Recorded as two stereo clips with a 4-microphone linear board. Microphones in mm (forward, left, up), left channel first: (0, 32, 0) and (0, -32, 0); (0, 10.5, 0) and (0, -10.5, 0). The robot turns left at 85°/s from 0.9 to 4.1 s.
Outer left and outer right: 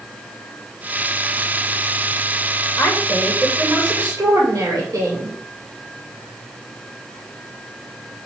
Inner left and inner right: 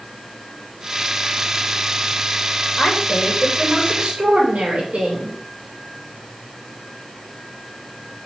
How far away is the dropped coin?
I don't hear a dropped coin.